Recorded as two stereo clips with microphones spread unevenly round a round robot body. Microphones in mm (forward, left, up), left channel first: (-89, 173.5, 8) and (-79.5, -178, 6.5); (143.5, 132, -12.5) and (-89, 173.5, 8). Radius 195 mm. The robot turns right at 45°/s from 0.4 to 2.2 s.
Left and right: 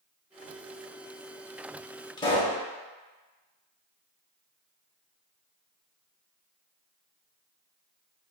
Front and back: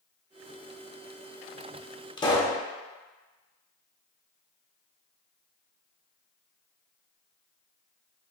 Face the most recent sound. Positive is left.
turn(degrees=25)